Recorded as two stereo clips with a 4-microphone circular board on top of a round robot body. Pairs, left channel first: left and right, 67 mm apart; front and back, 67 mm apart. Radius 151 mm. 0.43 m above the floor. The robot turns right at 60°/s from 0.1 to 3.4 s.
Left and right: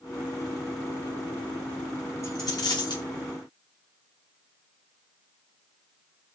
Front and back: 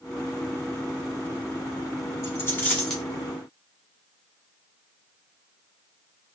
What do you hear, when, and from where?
2.2 s a dropped coin: 45° left, 1.3 m; by 3.0 s 90° left, 1.3 m